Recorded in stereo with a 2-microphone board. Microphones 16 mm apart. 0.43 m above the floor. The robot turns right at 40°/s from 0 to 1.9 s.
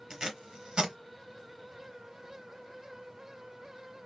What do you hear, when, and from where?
0.1 s tape being pulled: 50° right (ahead or behind), 1.3 m; by 0.9 s 80° right, 1.3 m